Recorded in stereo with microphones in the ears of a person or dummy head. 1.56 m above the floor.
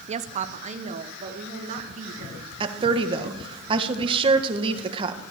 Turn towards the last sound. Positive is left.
turn(degrees=-30)  # may be behind; listen again after turning